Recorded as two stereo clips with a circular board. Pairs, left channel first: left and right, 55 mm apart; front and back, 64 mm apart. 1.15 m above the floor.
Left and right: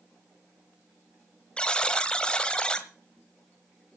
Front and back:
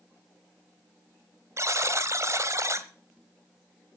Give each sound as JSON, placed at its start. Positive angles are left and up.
{"t": 1.6, "sound": "a buzzer", "azimuth_deg": 160, "distance_m": 1.4}